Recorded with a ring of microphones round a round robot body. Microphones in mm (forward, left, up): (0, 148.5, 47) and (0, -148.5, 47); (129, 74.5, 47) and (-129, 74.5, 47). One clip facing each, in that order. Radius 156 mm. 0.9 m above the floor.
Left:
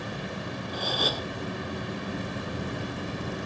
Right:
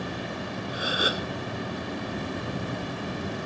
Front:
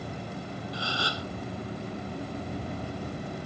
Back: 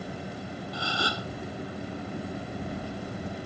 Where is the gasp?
170° right.